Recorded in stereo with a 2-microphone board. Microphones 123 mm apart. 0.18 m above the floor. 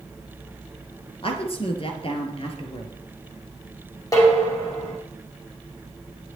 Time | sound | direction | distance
1.2 | a woman speaking | 50° left (ahead or behind) | 2.5 m
4.1 | dishes clattering | 30° left (ahead or behind) | 6 m